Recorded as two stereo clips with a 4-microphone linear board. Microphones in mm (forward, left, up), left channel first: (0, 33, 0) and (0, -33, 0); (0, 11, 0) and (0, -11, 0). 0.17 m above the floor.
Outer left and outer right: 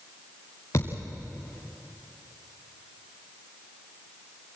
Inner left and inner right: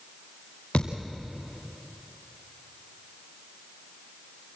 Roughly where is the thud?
Left.